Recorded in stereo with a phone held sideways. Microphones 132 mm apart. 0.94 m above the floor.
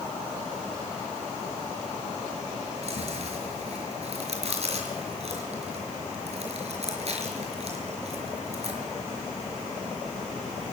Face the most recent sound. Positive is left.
turn(degrees=-55)  # may be behind; listen again after turning